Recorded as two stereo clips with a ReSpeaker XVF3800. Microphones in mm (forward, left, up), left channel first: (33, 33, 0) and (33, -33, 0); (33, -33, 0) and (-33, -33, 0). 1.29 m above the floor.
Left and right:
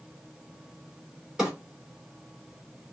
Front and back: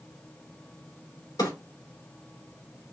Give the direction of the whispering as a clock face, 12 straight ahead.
No whispering in this recording.